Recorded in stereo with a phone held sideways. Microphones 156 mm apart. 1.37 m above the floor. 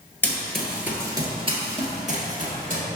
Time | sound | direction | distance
0.2 | running footsteps | 10° left (ahead or behind) | 1.6 m